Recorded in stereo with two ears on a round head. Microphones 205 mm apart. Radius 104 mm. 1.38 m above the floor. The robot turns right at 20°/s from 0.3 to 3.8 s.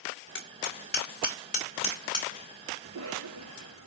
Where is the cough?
70° right (ahead or behind), 3 m; by 3.9 s 85° right, 3 m.